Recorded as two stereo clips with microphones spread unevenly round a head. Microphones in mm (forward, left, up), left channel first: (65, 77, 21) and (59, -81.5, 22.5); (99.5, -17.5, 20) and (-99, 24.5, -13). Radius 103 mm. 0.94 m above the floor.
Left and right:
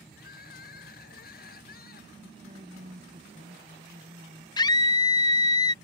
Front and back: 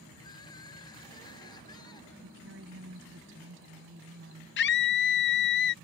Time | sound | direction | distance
0.1 | crying | 60° left | ?
2.2 | a woman speaking | 155° right | ?
4.6 | a scream | 25° left | ?